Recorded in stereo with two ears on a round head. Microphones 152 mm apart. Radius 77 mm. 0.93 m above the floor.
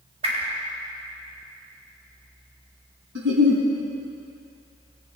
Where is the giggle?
80° right, 3 m.